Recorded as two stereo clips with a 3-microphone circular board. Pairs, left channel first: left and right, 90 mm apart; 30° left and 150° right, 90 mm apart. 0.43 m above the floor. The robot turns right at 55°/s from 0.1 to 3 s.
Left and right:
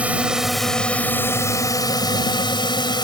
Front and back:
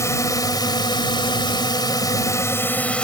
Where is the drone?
20° right; by 3.0 s 105° left.